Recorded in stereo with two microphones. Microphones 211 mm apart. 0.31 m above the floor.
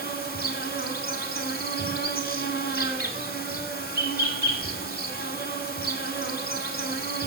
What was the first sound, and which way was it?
An insect, 50° left (ahead or behind).